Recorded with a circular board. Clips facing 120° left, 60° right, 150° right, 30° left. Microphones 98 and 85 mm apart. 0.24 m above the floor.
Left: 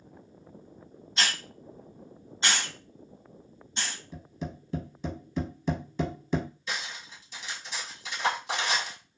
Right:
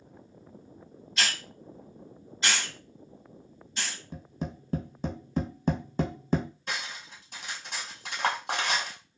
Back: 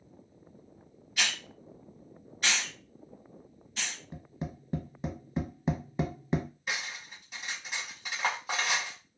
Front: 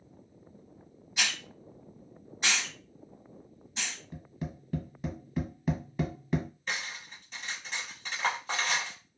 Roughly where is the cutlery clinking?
Right.